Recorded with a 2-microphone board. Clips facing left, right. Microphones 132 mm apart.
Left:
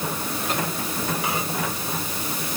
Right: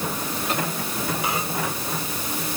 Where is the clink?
I don't hear a clink.